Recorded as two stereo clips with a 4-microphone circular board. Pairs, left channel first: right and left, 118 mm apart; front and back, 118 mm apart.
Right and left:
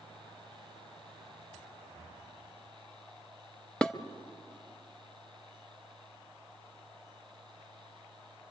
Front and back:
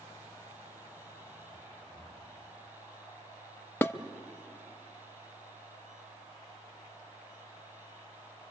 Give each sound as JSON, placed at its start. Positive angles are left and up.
{"t": 3.8, "sound": "dishes clattering", "azimuth_deg": -25, "distance_m": 0.7}